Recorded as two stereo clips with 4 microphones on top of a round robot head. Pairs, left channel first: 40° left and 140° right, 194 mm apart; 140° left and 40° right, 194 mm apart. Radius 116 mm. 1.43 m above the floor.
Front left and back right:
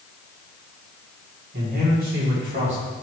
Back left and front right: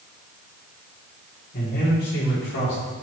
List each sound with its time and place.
1.5 s a man speaking: straight behind, 3.5 m; by 2.8 s 170° left, 3.5 m